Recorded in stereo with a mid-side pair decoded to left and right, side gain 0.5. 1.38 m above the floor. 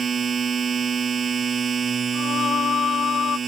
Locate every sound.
0.0 s a machine running: 35° right
2.1 s singing: 55° left